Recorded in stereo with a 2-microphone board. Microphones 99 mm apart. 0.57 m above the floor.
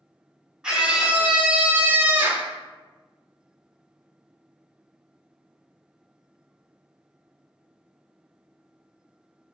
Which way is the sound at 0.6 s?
10° right (ahead or behind).